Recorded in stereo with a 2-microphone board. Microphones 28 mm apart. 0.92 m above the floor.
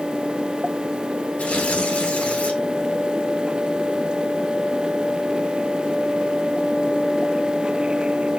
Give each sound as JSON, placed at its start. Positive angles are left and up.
{"t": 1.4, "sound": "tearing paper", "side_deg": 60, "distance_m": 2.5}